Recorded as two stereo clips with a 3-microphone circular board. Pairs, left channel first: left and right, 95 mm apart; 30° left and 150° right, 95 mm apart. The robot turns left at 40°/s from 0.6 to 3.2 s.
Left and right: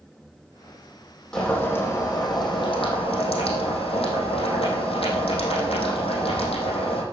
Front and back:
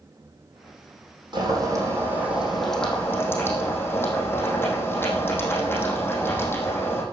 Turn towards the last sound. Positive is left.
turn(degrees=95)